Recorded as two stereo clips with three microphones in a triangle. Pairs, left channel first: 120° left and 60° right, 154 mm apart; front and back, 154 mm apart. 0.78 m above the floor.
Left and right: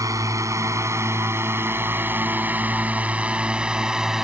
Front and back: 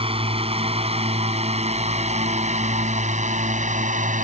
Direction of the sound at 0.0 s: 130° right.